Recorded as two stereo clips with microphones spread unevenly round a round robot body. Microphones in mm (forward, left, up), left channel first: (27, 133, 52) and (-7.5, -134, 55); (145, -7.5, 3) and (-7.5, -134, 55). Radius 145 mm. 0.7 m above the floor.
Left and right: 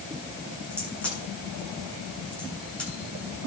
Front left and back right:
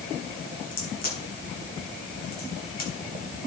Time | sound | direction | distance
0.7 | a crack | 5° right | 8.5 m